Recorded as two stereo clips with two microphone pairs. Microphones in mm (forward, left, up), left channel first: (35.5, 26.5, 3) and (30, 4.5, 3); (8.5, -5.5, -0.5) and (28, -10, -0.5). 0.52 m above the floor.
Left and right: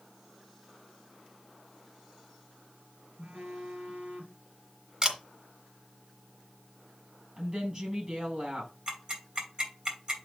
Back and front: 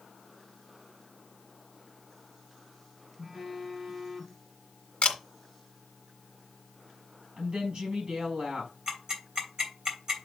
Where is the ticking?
60° right, 3 m.